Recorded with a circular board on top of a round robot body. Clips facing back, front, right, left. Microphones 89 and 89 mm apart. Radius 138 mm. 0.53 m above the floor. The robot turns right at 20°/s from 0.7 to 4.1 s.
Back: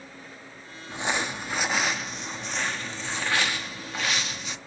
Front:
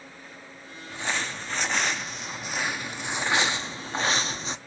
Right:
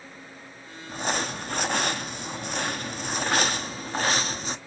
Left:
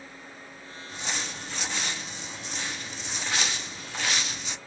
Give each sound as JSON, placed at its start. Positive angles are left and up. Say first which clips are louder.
{"t": 0.9, "sound": "crumpling", "louder": "back 2 dB, right 7 dB", "azimuth_deg": -115, "distance_m": 0.5}